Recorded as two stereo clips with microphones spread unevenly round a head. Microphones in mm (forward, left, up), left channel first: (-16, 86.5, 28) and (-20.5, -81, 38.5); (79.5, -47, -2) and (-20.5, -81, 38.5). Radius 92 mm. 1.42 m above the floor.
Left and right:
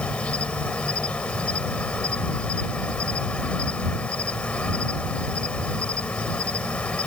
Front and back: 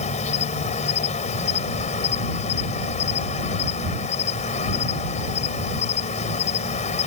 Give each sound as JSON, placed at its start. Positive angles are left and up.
{"t": 0.0, "sound": "an insect", "azimuth_deg": 5}